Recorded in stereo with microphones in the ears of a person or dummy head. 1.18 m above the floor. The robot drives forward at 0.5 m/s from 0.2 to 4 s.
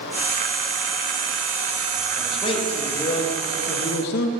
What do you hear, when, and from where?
2.2 s a man speaking: 25° left (ahead or behind), 1.8 m; by 4.3 s 50° left (ahead or behind), 1.0 m